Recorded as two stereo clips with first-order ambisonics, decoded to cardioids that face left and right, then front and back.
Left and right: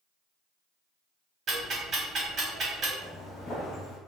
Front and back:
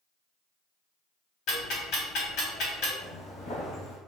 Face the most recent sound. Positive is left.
turn(degrees=40)